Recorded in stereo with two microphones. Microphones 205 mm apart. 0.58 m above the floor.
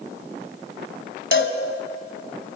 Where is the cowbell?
75° left (ahead or behind), 1.7 m.